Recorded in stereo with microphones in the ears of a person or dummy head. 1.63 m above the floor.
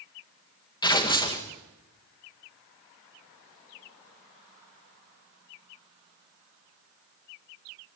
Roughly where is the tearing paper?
Left.